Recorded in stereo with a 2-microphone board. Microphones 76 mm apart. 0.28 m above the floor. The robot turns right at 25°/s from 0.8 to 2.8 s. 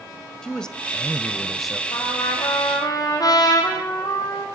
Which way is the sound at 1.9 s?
75° left (ahead or behind).